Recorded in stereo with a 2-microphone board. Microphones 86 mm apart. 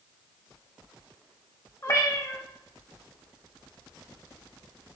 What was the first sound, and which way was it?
A cat meowing, 35° left (ahead or behind).